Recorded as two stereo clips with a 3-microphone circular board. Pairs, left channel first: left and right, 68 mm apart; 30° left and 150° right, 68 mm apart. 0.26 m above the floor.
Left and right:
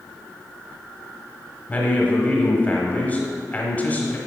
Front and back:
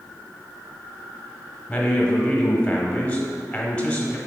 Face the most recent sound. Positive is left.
turn(degrees=70)